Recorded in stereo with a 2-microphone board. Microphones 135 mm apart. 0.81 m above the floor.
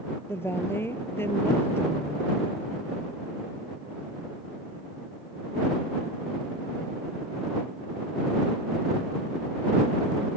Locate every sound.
0.3 s a woman speaking: 15° left (ahead or behind)